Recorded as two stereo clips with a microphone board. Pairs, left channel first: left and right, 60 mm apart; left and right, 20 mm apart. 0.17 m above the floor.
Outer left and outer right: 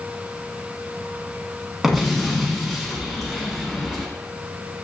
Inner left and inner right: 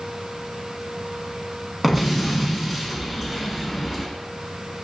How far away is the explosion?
About 0.8 m.